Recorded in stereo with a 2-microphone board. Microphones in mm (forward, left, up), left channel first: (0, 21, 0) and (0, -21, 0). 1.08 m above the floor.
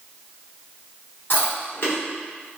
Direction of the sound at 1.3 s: 60° left (ahead or behind).